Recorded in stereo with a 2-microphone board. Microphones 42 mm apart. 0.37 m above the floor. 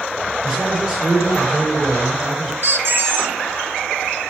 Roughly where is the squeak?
Right.